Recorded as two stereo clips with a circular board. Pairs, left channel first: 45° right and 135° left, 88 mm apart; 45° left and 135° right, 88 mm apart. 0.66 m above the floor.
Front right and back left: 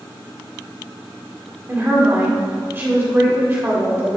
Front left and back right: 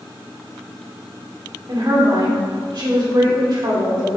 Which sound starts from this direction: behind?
A woman speaking, at 1.7 s.